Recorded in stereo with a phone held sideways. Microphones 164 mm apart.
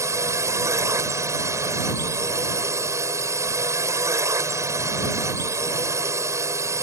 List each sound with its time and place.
0.0 s a drone: 15° right (ahead or behind)